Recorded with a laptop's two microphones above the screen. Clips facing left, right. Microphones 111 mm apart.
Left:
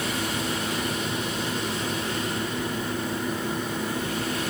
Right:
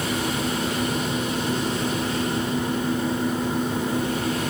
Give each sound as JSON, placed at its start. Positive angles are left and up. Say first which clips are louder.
{"t": 0.0, "sound": "a fan", "louder": "right 3 dB", "side_deg": -25, "distance_m": 5.5}